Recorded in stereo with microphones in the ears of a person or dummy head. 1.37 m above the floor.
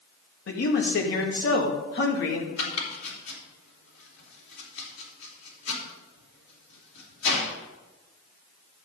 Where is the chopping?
85° left, 3 m.